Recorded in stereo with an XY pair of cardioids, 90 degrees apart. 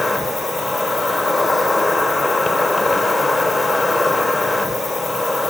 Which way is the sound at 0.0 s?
30° left.